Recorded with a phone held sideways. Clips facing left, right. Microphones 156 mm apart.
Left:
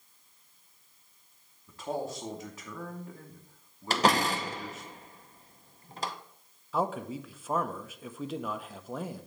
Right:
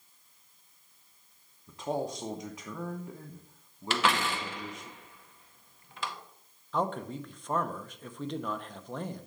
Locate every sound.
1.7 s a man speaking: 20° right (ahead or behind), 0.9 m
3.9 s a door slam: 40° left (ahead or behind), 0.7 m
6.7 s a man speaking: 5° left (ahead or behind), 0.6 m